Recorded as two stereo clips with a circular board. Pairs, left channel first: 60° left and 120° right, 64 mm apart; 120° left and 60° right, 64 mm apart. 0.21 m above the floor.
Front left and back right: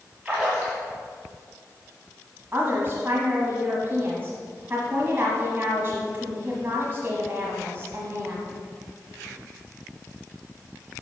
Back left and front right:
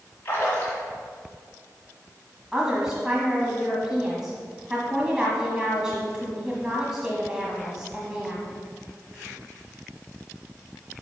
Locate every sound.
0.2 s a splash: 175° left, 3 m
2.5 s a woman speaking: 130° right, 1.2 m